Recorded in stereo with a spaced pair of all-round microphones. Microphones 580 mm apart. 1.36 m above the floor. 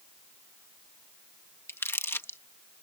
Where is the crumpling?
5° left (ahead or behind).